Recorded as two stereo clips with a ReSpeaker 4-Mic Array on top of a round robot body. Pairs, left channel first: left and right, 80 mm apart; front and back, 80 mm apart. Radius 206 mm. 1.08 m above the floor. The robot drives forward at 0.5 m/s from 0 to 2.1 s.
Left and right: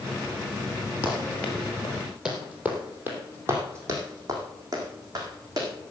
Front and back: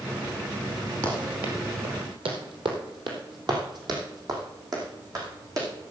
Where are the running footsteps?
140° left, 1.7 m; by 5.7 s 135° right, 5.5 m.